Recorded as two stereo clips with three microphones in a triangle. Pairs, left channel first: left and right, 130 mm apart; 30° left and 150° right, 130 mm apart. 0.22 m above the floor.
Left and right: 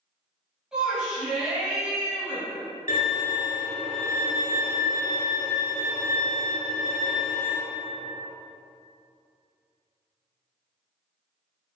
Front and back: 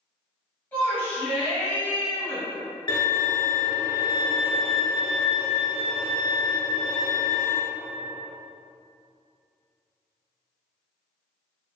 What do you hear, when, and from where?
0.7 s a shout: 20° right, 1.3 m
2.9 s a violin: 85° left, 0.7 m